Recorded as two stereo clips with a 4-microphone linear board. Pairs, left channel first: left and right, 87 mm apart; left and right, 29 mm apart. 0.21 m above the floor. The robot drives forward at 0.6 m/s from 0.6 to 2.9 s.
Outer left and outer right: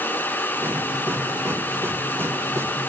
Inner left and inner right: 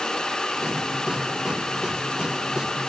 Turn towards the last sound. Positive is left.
No sound to turn to.